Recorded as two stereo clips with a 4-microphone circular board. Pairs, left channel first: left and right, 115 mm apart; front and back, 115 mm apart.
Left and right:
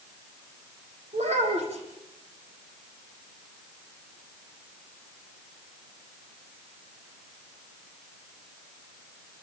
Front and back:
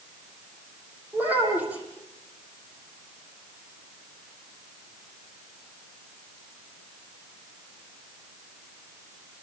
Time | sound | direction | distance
1.1 | a child speaking | 105° right | 8.5 m